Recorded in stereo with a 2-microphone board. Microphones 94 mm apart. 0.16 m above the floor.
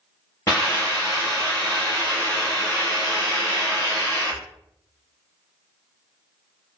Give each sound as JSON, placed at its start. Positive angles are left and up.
{"t": 0.5, "sound": "a hiss", "side_deg": 40, "distance_m": 1.9}